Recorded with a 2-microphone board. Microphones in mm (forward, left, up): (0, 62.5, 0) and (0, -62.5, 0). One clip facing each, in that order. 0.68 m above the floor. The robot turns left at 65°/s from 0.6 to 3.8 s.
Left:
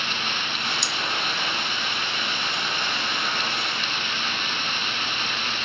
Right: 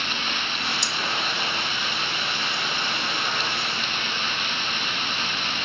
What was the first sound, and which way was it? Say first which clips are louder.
Cutlery clinking: even; 60° left (ahead or behind).